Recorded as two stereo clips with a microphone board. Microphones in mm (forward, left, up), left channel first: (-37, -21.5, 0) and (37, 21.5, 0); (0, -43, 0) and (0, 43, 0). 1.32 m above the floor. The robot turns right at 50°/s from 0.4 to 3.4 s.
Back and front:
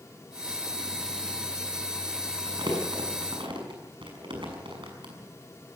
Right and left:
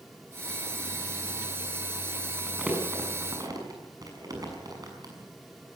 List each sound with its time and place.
2.5 s crumpling: straight ahead, 6 m; by 5.1 s 45° left, 6 m